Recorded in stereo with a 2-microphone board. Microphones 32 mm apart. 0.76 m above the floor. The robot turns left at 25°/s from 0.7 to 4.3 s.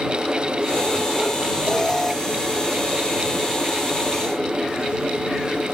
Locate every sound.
1.7 s an alarm: 20° left (ahead or behind); by 2.1 s 10° left (ahead or behind)